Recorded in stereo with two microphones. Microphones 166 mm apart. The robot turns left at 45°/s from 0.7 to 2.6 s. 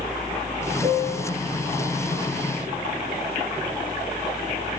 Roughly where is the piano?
Right.